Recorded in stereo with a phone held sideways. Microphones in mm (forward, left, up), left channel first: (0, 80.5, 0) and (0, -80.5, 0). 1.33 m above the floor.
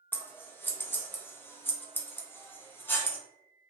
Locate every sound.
0.1 s scissors: 15° left (ahead or behind), 0.5 m